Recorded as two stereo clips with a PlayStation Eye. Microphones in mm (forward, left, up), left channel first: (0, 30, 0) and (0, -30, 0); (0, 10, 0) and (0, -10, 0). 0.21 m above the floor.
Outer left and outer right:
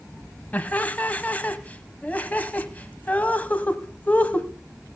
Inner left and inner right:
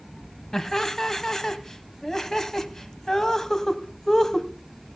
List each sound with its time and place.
0.5 s laughter: 25° left (ahead or behind), 1.0 m